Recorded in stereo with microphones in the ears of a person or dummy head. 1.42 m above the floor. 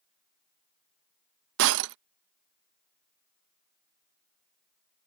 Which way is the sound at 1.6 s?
50° right (ahead or behind).